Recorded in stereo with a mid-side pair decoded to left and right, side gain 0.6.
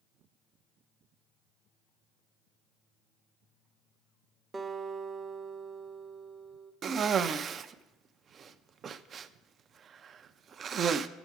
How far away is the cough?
About 0.5 m.